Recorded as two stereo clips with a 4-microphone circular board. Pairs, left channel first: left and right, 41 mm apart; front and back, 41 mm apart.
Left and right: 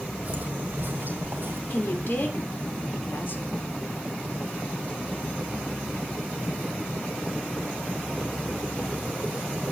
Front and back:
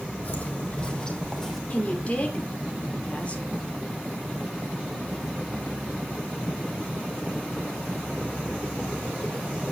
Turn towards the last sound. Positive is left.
turn(degrees=55)